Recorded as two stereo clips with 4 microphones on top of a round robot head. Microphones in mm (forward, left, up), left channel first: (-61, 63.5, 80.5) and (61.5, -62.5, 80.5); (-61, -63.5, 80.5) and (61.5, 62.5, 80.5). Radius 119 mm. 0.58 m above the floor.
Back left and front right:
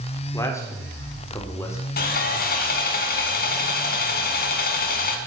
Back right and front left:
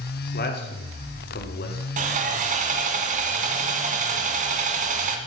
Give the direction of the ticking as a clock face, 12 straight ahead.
No ticking in this recording.